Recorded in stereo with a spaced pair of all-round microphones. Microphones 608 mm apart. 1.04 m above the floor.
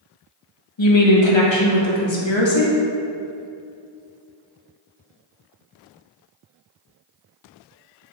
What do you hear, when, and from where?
0.8 s a woman speaking: 50° left (ahead or behind), 0.9 m